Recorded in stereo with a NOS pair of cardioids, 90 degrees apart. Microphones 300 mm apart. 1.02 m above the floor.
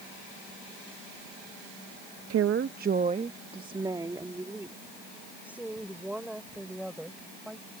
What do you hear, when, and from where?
2.3 s a woman speaking: 55° right; by 7.7 s straight ahead